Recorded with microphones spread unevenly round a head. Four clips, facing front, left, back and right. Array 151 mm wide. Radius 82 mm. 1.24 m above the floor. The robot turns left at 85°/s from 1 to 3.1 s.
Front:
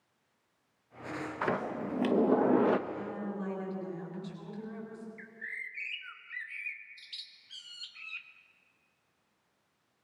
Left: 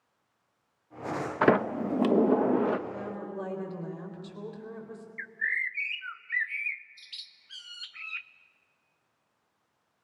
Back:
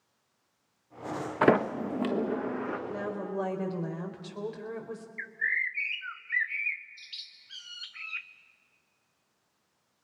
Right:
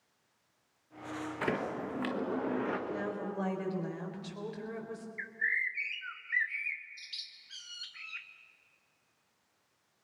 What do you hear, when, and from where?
1.4 s a sliding door: 145° left, 1.0 m; by 2.8 s 25° left, 1.0 m
2.9 s a woman speaking: 170° right, 4 m; by 5.1 s 175° left, 4 m
5.2 s a bird: 115° left, 0.6 m